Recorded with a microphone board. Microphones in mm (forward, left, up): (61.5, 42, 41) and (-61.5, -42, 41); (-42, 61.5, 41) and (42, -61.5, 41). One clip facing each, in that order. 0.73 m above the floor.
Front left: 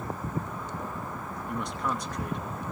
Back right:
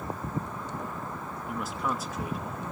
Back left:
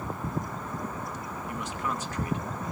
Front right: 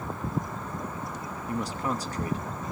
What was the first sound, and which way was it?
A man speaking, 65° right.